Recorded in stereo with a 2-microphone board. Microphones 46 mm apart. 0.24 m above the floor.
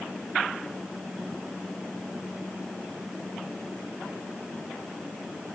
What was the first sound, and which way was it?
Only background noise.